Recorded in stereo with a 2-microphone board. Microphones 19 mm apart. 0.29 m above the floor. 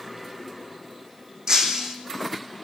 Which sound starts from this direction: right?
Breaking glass, at 1.5 s.